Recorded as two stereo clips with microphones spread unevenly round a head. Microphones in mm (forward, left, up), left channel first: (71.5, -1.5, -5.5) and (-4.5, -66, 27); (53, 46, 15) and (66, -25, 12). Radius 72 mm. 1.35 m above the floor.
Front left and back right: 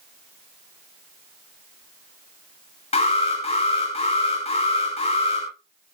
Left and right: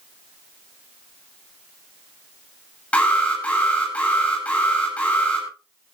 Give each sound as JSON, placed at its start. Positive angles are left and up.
{"t": 2.9, "sound": "an alarm", "azimuth_deg": 30, "distance_m": 9.5}